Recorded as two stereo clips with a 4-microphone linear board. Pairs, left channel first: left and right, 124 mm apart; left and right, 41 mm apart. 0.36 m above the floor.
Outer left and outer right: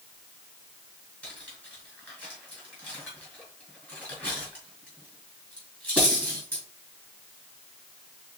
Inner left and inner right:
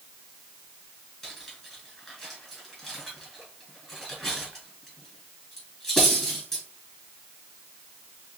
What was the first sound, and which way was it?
Cutlery clinking, 15° left (ahead or behind).